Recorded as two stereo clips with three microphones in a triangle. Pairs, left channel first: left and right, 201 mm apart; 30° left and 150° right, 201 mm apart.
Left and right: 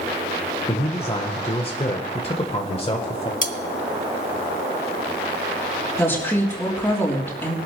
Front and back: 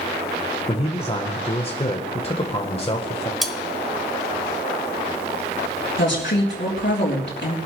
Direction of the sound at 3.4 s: 120° left.